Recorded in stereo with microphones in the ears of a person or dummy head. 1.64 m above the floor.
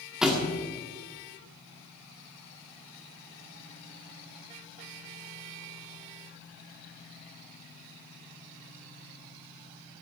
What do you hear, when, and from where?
0.2 s a thud: centre (ahead or behind), 2.0 m